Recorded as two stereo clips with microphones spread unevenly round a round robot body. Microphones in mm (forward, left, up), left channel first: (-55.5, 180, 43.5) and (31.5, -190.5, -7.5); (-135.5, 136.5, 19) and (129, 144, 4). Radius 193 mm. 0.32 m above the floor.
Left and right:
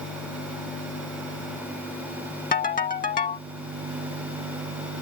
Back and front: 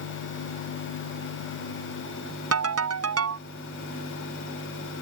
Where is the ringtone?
30° left.